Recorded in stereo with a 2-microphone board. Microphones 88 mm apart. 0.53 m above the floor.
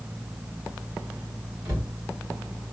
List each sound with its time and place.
1.6 s a cupboard door: 40° right (ahead or behind), 2.5 m